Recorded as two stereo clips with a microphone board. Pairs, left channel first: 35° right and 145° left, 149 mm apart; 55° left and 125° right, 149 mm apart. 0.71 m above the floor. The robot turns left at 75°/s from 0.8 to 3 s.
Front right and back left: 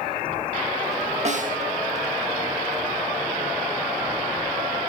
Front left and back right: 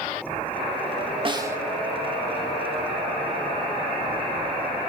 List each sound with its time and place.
1.2 s a snare drum: 175° right, 1.1 m; by 1.6 s 160° left, 1.1 m